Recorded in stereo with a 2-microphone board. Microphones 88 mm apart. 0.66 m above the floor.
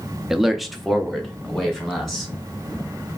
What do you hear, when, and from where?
0.3 s a man speaking: 5° right (ahead or behind), 0.5 m; by 2.3 s 5° left (ahead or behind), 2 m